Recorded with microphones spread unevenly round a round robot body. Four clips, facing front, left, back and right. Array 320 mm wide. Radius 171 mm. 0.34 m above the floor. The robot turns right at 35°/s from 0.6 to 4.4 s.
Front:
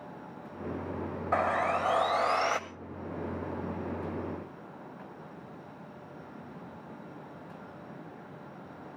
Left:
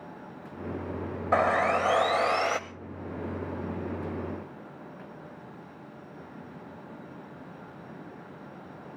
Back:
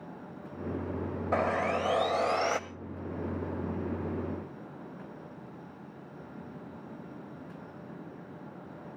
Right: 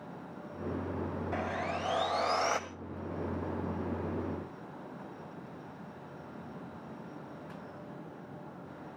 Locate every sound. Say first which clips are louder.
1.3 s sawing: left 14 dB, front 1 dB; 120° left, 0.5 m; by 2.6 s 165° left, 0.5 m